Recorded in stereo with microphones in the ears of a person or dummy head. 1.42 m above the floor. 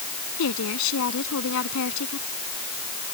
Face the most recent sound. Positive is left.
turn(degrees=75)  # may be behind; listen again after turning